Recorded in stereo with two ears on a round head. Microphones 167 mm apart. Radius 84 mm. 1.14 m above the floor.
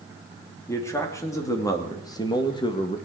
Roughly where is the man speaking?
Centre.